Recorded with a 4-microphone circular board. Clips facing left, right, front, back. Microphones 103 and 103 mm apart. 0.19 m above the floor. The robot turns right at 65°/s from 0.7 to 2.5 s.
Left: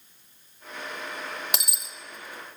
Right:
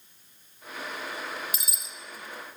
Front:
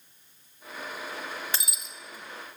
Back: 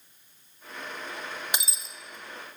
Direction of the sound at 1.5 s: 105° left.